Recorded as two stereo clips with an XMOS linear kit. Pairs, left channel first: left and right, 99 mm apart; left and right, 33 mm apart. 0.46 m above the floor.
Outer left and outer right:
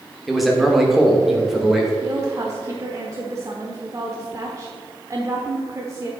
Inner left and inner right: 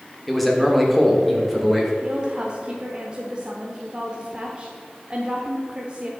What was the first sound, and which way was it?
A man speaking, centre (ahead or behind).